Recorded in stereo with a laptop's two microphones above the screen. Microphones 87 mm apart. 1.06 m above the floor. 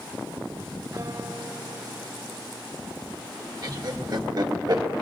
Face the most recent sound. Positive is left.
turn(degrees=-50)  # may be behind; listen again after turning